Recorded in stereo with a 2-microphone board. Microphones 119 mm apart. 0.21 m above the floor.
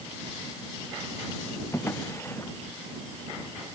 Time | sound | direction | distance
1.7 | a drawer | 20° left (ahead or behind) | ?